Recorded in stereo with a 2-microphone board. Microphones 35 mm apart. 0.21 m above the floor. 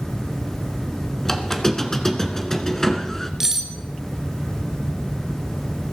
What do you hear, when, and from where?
1.2 s a squeak: 15° left (ahead or behind), 1.4 m
3.4 s cutlery clinking: 10° right (ahead or behind), 2 m